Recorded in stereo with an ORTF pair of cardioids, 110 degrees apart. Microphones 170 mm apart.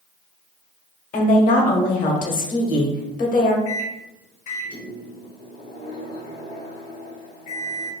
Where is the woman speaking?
50° left, 1.1 m.